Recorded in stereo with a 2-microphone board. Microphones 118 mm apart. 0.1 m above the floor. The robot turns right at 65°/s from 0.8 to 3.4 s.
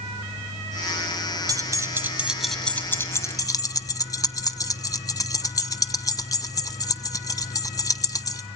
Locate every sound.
1.5 s keys jangling: 30° right (ahead or behind), 1.0 m; by 8.4 s 30° left (ahead or behind), 1.0 m